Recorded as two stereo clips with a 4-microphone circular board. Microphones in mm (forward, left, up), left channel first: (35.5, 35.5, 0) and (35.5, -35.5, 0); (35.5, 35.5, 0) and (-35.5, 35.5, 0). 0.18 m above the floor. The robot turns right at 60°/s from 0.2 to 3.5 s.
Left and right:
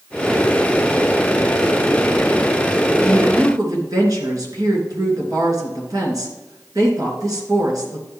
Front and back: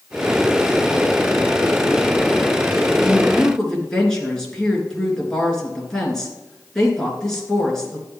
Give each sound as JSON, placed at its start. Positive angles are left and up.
{"t": 3.0, "sound": "a woman speaking", "azimuth_deg": -105, "distance_m": 2.5}